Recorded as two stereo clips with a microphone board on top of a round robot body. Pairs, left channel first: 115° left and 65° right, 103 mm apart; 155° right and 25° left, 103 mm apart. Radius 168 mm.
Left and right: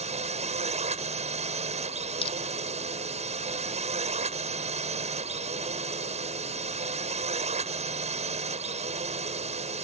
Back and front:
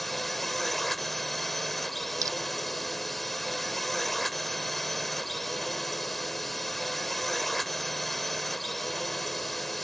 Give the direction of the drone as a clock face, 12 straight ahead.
2 o'clock.